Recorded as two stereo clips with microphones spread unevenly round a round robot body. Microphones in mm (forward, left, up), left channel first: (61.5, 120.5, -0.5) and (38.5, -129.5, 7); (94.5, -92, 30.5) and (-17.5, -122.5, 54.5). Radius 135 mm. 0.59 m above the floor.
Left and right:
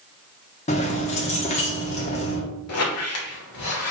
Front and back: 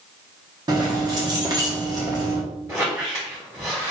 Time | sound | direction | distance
0.7 | keys jangling | 135° left | 0.8 m
2.7 | a squeak | 120° left | 1.1 m